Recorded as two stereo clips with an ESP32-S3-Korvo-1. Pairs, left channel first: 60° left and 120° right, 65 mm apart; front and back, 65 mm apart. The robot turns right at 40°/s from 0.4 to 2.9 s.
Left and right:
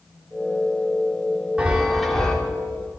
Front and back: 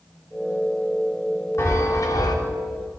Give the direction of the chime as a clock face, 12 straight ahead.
2 o'clock.